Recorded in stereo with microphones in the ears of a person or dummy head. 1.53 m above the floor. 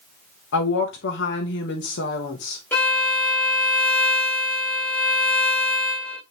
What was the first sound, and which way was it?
A woman speaking, 70° left (ahead or behind).